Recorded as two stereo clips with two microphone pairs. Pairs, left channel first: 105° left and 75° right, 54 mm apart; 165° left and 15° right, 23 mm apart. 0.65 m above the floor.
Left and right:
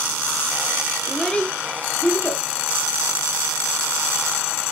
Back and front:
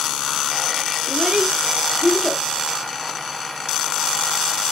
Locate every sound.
1.1 s a child speaking: 20° left, 0.7 m; by 2.4 s 75° left, 1.1 m